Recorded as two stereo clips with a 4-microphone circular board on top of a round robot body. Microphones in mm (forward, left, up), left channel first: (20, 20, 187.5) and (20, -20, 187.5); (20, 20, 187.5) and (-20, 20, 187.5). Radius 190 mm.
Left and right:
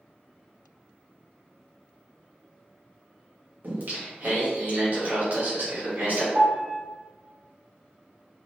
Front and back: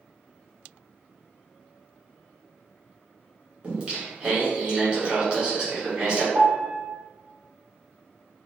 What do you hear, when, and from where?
3.6 s singing: 120° right, 1.7 m
6.3 s a piano: 110° right, 1.9 m